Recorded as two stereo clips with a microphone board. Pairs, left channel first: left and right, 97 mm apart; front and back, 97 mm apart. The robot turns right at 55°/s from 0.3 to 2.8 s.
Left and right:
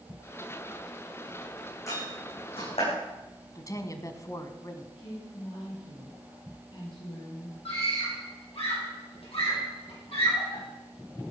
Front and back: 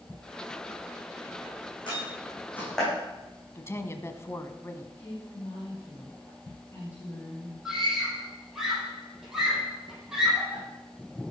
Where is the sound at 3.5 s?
55° left, 1.4 m.